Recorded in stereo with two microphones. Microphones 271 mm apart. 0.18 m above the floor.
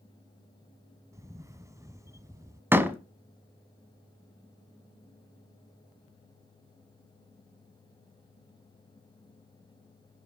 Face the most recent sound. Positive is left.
turn(degrees=-10)  # may be behind; listen again after turning